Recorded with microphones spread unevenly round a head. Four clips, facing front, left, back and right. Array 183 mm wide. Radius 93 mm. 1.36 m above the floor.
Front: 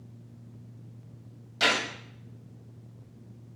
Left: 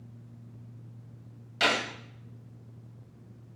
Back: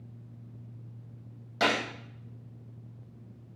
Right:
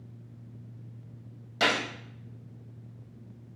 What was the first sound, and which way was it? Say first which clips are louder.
A gunshot: even, even; 140° right.